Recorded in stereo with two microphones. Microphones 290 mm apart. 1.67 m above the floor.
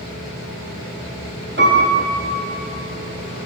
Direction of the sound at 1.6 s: 40° right (ahead or behind).